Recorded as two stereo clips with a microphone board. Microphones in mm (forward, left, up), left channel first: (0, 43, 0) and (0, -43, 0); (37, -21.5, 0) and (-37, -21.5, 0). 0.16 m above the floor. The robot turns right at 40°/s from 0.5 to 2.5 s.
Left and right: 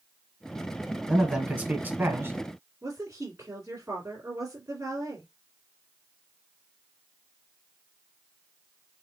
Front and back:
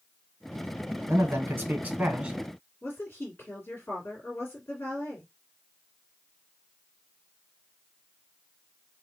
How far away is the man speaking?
About 1.3 m.